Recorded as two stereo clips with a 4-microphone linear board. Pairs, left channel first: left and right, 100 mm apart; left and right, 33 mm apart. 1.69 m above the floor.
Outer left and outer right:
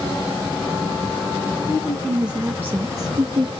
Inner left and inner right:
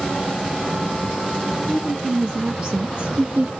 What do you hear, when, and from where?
1.7 s a woman speaking: 5° left (ahead or behind), 1.1 m; by 3.5 s 55° right (ahead or behind), 0.8 m